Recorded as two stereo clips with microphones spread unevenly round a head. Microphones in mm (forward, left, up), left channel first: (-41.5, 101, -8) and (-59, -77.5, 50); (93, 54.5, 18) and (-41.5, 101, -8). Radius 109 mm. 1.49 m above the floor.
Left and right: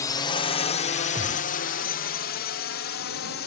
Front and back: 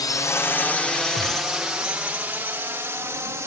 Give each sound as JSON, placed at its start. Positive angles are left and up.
{"t": 0.0, "sound": "a drone", "azimuth_deg": 45}
{"t": 1.1, "sound": "a gunshot", "azimuth_deg": -30}